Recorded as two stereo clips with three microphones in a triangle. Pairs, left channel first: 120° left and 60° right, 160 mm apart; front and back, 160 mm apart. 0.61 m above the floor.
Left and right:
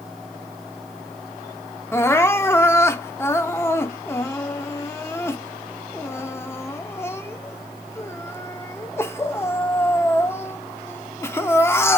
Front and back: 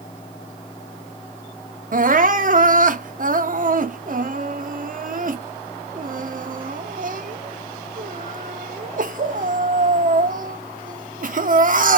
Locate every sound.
1.9 s crying: 170° right, 0.7 m